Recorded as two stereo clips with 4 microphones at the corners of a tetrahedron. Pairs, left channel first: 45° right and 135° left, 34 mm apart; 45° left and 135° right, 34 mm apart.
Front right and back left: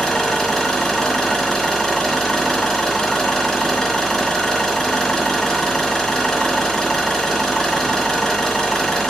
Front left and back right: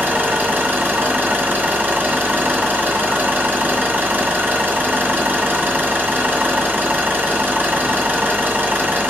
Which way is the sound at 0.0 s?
125° right.